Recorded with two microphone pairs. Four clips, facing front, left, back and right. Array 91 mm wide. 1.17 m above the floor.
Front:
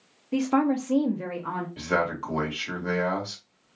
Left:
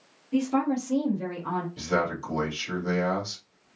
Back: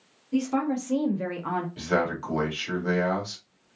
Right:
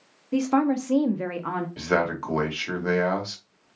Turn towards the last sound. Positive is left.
turn(degrees=-85)